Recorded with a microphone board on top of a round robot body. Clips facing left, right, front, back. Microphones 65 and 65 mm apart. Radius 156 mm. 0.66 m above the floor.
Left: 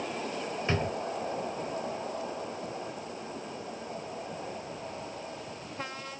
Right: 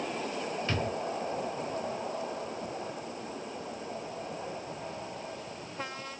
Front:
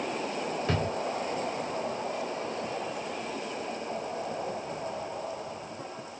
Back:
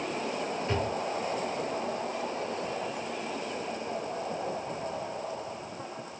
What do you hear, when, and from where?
0.7 s a drawer: 20° left, 0.6 m